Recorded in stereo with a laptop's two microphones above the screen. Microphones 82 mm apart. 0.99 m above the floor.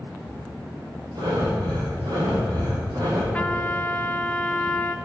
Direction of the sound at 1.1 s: 75° right (ahead or behind).